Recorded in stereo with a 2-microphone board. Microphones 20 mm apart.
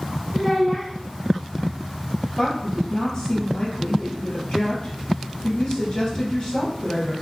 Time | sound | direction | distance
0.3 | a child speaking | 10° left (ahead or behind) | 0.6 m
2.4 | a woman speaking | 45° left (ahead or behind) | 1.6 m